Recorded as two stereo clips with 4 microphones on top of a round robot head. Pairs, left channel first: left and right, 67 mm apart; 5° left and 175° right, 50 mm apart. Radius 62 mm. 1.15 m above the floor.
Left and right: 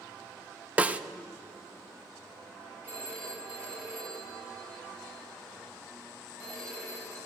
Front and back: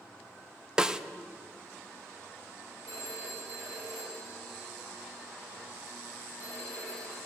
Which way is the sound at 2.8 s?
155° right.